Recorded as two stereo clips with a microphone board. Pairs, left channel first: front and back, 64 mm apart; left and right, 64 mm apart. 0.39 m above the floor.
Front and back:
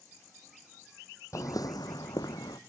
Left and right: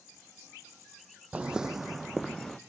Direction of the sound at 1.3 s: 25° right.